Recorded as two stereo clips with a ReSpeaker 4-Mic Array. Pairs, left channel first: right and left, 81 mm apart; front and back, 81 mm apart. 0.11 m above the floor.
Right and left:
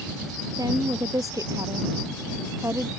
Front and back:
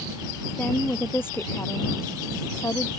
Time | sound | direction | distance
0.6 | a woman speaking | 65° left | ?